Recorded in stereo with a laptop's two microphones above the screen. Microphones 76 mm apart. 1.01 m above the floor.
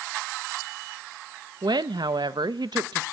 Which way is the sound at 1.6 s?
70° right (ahead or behind).